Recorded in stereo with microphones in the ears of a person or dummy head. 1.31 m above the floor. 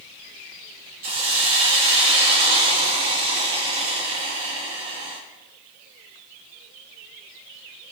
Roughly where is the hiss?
Right.